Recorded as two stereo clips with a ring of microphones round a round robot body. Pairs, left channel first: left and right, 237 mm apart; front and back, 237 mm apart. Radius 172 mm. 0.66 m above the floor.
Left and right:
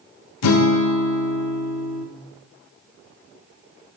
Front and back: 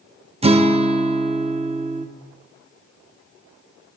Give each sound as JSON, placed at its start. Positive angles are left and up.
{"t": 0.4, "sound": "a guitar", "azimuth_deg": 110, "distance_m": 0.8}